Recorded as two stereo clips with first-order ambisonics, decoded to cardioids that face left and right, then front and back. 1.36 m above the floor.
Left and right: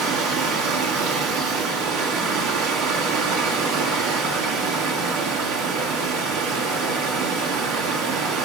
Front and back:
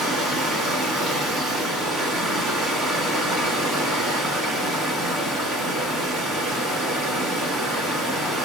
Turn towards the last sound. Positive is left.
turn(degrees=-120)